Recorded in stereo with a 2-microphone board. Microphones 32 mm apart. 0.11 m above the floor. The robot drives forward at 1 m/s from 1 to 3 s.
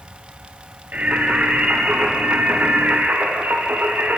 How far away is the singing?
About 6 m.